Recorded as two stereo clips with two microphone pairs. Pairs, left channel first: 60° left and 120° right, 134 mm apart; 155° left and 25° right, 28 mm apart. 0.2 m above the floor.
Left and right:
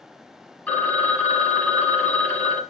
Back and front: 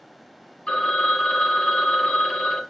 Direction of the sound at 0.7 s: 135° left.